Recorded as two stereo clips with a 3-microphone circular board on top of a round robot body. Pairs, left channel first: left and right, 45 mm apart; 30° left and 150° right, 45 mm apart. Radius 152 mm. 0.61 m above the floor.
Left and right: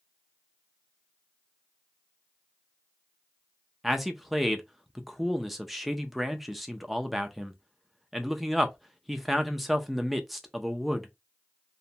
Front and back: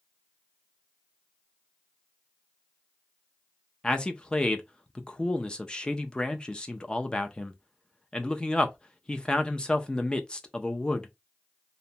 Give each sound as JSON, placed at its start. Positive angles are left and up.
{"t": 3.8, "sound": "a man speaking", "azimuth_deg": -5, "distance_m": 0.6}